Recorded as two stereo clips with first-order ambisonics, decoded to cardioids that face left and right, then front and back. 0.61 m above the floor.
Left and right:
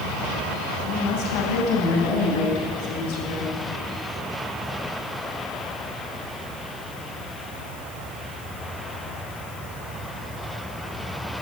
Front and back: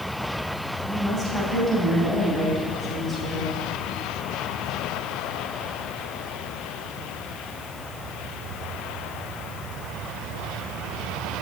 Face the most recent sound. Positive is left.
turn(degrees=80)